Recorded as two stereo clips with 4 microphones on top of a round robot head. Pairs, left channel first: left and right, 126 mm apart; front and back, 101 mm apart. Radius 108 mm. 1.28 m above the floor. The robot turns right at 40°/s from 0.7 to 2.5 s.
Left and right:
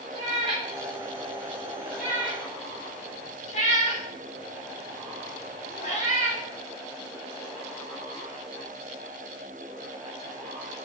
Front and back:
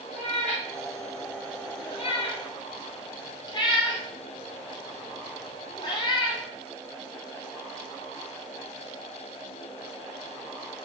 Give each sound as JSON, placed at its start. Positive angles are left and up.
{"t": 0.1, "sound": "a cat meowing", "azimuth_deg": -30, "distance_m": 2.5}